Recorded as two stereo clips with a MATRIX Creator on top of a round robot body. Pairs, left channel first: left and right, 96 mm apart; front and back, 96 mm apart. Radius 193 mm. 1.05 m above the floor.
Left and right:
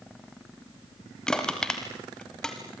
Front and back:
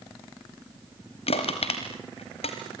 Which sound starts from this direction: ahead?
Crushing, at 1.3 s.